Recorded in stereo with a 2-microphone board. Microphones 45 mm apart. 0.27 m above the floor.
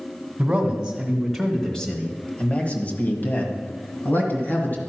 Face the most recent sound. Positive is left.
turn(degrees=50)  # may be behind; listen again after turning